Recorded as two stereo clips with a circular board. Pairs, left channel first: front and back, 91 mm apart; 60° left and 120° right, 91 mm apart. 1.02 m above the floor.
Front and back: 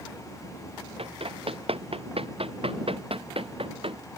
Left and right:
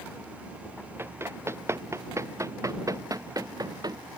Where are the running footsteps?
175° left; by 4.0 s 165° right.